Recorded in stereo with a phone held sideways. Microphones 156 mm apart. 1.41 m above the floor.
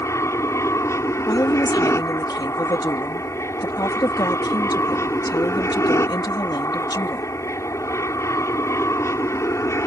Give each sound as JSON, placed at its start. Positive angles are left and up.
{"t": 0.0, "sound": "an aircraft", "side_deg": 20}
{"t": 1.3, "sound": "a woman speaking", "side_deg": 30}